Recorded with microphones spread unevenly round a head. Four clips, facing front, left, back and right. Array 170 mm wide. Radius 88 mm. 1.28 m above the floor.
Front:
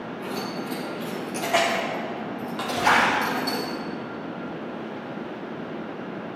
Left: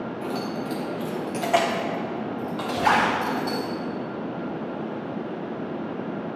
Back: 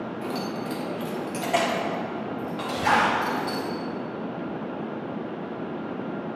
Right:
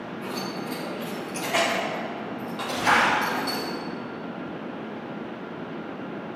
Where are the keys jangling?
120° left, 1.7 m; by 3.7 s 35° left, 2.5 m.